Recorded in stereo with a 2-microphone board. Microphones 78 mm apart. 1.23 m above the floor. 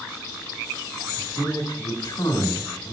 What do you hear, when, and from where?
1.2 s a man speaking: 75° left (ahead or behind), 2.5 m